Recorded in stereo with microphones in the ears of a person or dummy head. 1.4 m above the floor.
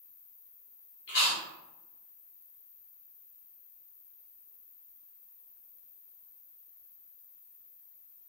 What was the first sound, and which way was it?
An insect, 40° left (ahead or behind).